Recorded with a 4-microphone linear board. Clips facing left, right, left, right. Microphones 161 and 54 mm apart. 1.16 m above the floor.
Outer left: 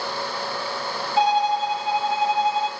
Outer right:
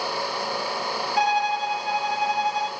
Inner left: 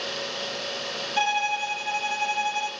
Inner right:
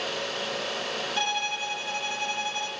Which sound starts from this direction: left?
A violin, at 1.2 s.